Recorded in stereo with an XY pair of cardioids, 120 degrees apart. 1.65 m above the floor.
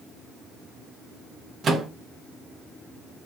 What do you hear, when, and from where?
1.6 s a microwave: 45° right, 0.6 m